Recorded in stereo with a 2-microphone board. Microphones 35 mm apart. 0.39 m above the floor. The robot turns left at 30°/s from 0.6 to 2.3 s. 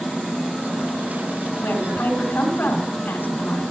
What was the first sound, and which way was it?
A woman speaking, 75° left (ahead or behind).